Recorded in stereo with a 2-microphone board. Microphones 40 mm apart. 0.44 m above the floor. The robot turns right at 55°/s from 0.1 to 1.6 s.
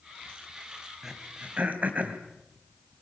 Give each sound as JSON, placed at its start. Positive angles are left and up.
{"t": 1.0, "sound": "throat clearing", "side_deg": -10, "distance_m": 3.0}